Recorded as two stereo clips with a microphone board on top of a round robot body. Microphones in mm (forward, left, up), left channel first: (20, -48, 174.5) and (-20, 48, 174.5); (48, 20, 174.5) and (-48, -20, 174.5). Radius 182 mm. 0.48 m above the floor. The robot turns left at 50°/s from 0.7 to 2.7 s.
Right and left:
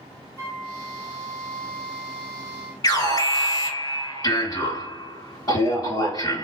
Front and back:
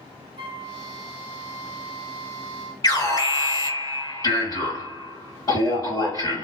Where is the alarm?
25° right, 3 m.